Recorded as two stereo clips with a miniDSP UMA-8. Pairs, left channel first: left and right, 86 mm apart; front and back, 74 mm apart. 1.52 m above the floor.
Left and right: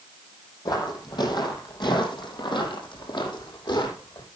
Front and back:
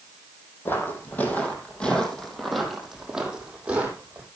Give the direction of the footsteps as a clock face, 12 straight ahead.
10 o'clock.